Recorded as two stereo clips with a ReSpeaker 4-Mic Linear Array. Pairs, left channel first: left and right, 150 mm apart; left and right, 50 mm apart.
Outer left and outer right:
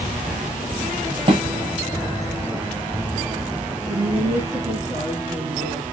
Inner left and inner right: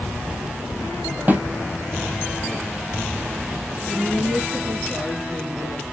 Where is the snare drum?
35° right (ahead or behind), 1.2 m.